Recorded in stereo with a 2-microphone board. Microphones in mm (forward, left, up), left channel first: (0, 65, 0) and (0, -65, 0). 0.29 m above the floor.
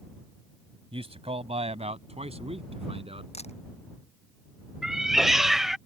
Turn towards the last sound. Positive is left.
turn(degrees=-5)  # may be behind; listen again after turning